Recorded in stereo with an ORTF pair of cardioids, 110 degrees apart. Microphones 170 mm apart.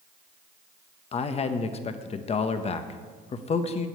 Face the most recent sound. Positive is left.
turn(degrees=40)